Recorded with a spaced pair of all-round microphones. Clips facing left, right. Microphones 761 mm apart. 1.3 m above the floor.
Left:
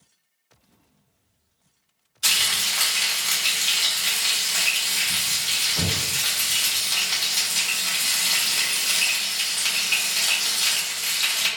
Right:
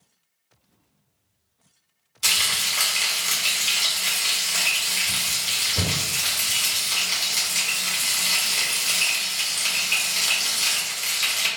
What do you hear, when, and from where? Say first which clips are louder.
2.2 s frying: even; 40° right (ahead or behind), 1.1 m